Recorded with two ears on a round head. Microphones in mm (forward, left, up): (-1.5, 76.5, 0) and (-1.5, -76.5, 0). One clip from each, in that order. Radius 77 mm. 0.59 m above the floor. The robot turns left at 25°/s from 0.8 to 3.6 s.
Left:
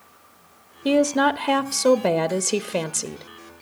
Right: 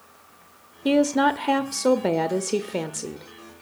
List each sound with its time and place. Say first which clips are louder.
0.8 s a woman speaking: left 1 dB; 5° left (ahead or behind), 0.7 m; by 3.2 s 25° left (ahead or behind), 0.7 m